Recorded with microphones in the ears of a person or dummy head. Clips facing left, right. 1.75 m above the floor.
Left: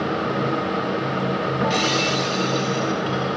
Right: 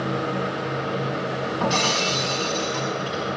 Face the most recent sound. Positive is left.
turn(degrees=20)  # may be behind; listen again after turning